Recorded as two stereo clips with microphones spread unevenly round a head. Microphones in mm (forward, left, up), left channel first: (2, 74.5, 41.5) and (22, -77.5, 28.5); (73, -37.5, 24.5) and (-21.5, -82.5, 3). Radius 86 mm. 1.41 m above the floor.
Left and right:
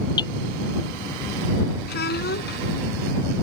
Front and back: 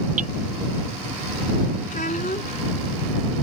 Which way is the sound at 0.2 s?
160° left.